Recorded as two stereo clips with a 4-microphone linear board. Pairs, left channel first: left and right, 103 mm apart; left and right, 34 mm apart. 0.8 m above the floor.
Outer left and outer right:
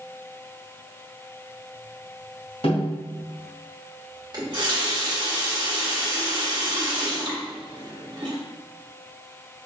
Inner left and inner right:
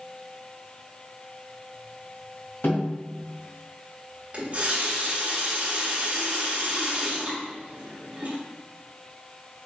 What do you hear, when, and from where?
2.6 s a snare drum: 75° left (ahead or behind), 2 m
4.3 s a running tap: 45° right (ahead or behind), 1.2 m